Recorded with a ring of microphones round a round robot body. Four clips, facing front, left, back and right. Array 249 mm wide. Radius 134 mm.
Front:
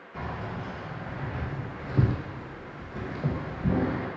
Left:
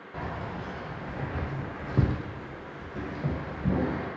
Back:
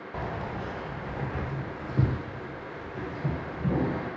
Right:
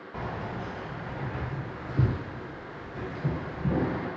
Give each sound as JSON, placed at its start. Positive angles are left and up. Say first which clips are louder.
{"t": 0.1, "sound": "keys jangling", "louder": "right 1 dB, back 1 dB", "azimuth_deg": 180, "distance_m": 1.0}